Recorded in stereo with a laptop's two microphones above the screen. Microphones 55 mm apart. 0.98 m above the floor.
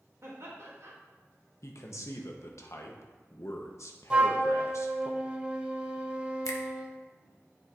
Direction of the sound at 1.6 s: 60° left (ahead or behind).